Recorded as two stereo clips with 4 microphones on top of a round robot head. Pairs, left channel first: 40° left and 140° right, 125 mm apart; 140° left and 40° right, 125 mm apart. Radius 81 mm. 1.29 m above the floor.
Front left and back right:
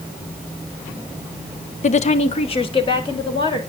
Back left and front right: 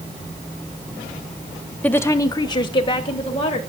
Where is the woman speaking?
60° left, 0.7 m; by 3.6 s 95° left, 2 m.